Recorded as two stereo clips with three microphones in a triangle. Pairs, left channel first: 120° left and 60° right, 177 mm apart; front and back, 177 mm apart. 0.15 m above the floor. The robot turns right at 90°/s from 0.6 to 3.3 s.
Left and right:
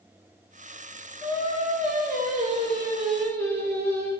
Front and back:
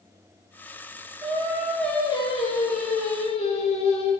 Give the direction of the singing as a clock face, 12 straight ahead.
5 o'clock.